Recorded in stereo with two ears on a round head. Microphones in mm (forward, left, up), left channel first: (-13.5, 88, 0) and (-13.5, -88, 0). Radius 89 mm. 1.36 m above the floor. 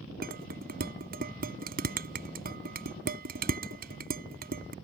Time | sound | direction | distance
0.2 | dishes clattering | 50° right (ahead or behind) | ?